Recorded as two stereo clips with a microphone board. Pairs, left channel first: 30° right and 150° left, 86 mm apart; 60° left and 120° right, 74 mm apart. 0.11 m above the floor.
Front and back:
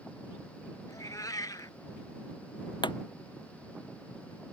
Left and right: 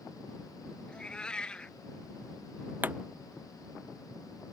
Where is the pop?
55° right.